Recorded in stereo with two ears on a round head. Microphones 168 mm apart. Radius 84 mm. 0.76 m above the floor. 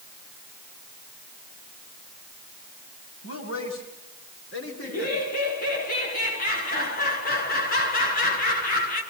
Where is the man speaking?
80° left, 8.5 m; by 5.2 s 70° left (ahead or behind), 9.5 m.